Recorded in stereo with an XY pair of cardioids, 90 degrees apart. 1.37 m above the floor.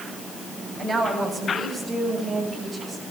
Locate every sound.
0.8 s a woman speaking: 45° right, 8.5 m; by 3.0 s 30° right, 8.5 m